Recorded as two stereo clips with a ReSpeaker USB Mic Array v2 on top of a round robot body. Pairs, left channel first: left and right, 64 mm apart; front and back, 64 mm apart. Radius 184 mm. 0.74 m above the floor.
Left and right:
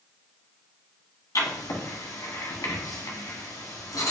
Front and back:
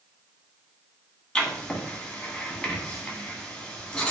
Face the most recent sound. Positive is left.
turn(degrees=75)